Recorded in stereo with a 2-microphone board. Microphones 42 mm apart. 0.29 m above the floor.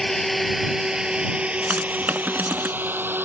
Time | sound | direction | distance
0.0 | a drone | 10° left (ahead or behind) | ?
1.7 | typing on a keyboard | 45° right (ahead or behind) | ?